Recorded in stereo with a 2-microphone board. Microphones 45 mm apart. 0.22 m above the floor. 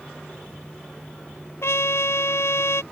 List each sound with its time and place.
1.6 s a trumpet: 80° left